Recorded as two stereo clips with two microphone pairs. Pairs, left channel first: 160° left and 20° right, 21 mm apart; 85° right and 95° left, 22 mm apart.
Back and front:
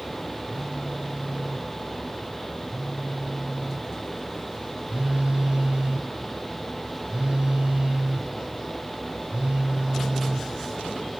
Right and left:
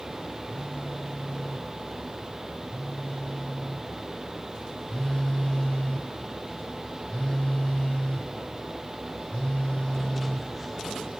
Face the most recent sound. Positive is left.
turn(degrees=-60)